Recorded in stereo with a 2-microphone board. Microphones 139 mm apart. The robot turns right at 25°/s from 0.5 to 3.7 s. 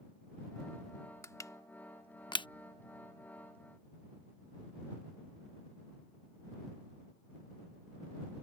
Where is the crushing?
20° left (ahead or behind); by 2.5 s 35° left (ahead or behind).